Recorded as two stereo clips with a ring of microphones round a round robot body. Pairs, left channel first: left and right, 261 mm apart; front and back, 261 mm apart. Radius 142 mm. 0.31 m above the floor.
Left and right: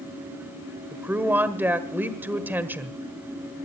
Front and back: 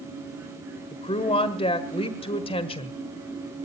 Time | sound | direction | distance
0.9 | a woman speaking | 20° right | 1.4 m